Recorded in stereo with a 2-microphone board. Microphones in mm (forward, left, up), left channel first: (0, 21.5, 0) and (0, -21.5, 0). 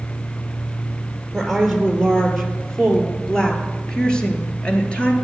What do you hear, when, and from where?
1.3 s a woman speaking: centre (ahead or behind), 4 m; by 5.1 s 30° left (ahead or behind), 3 m